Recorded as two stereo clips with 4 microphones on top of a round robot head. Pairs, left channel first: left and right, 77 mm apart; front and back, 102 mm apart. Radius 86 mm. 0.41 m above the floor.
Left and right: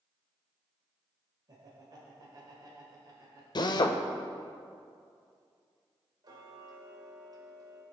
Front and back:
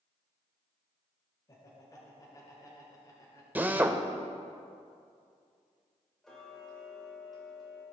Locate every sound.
1.5 s laughter: 55° right, 1.6 m
3.5 s a drill: 105° left, 0.8 m
6.2 s ticking: 90° right, 1.7 m